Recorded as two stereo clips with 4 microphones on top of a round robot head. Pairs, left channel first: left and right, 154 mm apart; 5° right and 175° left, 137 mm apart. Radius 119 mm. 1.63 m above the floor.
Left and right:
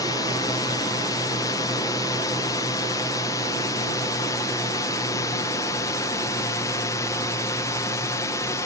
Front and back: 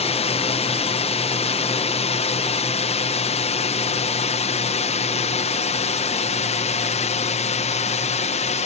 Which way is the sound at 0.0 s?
25° left.